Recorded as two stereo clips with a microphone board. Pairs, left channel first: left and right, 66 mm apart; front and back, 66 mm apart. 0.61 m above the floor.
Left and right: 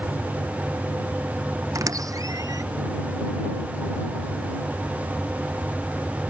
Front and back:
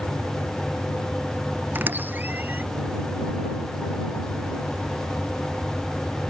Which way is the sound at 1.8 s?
120° right.